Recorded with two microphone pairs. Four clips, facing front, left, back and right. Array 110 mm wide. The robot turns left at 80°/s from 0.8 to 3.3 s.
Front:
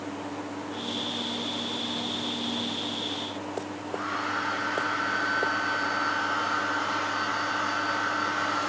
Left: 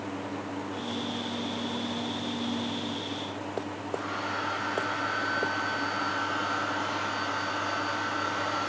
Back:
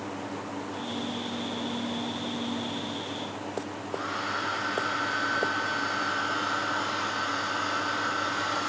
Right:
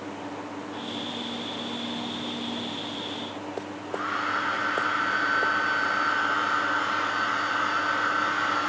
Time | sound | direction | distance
3.9 | a hair dryer | 90° right | 4.5 m